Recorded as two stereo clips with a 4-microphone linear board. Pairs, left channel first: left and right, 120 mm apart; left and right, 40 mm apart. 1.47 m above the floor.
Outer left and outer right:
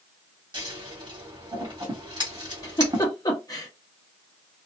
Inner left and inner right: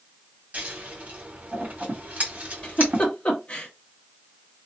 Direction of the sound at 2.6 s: 35° left (ahead or behind).